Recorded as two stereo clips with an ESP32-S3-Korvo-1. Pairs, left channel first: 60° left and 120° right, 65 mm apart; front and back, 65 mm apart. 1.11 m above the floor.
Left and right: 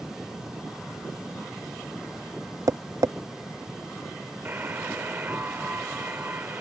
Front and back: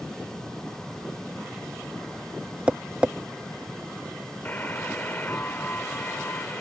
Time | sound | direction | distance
2.7 | tapping | 110° right | ?
4.5 | a buzzer | 60° right | ?